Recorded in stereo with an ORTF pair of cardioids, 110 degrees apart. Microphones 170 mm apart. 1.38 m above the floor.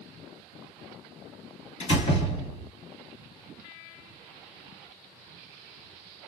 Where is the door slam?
40° left, 2 m.